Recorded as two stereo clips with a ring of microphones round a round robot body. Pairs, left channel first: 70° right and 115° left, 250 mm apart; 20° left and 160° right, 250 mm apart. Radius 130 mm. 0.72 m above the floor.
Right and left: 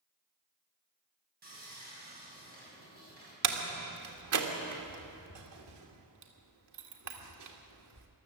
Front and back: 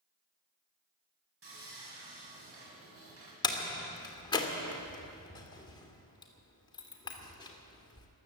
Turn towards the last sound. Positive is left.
turn(degrees=95)